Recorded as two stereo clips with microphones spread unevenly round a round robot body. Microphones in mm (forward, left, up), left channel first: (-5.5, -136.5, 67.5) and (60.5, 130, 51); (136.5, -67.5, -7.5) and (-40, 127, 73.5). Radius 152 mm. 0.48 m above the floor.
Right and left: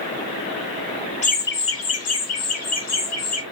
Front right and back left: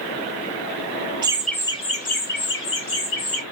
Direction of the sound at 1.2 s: 135° right.